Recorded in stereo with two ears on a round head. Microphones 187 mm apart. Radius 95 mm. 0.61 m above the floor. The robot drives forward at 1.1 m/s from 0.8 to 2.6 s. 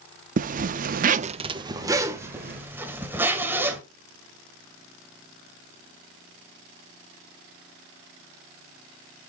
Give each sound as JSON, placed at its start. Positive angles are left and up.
{"t": 0.4, "sound": "a zipper", "side_deg": -40, "distance_m": 0.5}